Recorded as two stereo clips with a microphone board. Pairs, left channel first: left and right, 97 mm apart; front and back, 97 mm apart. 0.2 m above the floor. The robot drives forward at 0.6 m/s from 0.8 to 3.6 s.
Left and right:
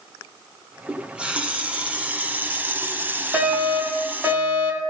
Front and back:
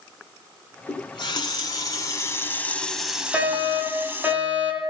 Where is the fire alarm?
120° right, 2 m; by 4.9 s 130° right, 2 m.